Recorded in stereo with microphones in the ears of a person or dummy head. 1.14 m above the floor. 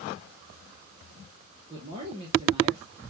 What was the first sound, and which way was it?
A man speaking, 30° right (ahead or behind).